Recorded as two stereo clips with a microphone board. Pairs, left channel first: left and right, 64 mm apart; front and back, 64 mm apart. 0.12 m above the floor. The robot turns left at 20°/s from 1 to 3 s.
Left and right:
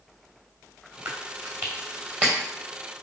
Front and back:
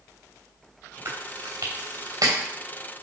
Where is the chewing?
130° right, 3 m; by 2.4 s 160° right, 3 m.